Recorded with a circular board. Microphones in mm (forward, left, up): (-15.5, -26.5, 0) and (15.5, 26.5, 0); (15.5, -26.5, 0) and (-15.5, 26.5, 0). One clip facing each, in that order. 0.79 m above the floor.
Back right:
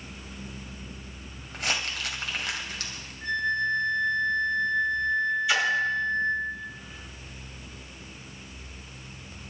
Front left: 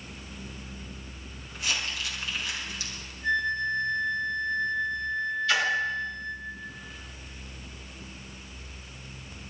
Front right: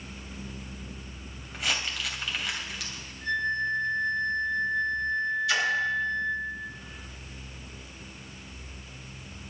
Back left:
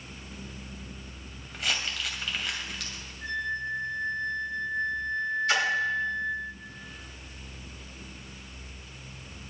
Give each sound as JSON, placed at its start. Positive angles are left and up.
{"t": 1.5, "sound": "crumpling", "azimuth_deg": -150, "distance_m": 2.5}
{"t": 3.2, "sound": "a flute", "azimuth_deg": -155, "distance_m": 3.5}
{"t": 5.5, "sound": "a splash", "azimuth_deg": 165, "distance_m": 5.5}